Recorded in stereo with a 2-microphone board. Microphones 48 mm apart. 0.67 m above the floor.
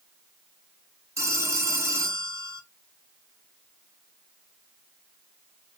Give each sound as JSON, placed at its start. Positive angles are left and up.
{"t": 1.2, "sound": "a phone ringing", "side_deg": -85, "distance_m": 1.0}